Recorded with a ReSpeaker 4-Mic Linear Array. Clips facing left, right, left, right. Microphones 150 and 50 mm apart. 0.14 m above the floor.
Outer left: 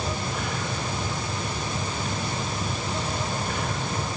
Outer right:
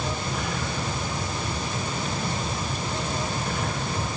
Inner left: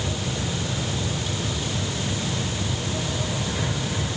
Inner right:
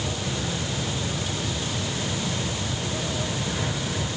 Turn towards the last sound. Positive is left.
No sound to turn to.